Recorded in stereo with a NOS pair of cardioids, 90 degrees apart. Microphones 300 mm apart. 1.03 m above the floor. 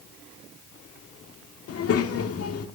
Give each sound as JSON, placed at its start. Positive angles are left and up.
{"t": 1.7, "sound": "a child speaking", "azimuth_deg": 50, "distance_m": 1.5}